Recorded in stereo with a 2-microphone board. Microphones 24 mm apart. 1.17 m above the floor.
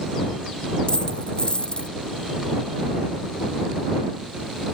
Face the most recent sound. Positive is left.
turn(degrees=40)  # may be behind; listen again after turning